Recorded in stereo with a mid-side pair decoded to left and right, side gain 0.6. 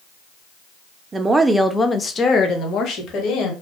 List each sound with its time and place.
1.1 s a woman speaking: 30° right, 0.5 m; by 3.5 s 60° left, 1.2 m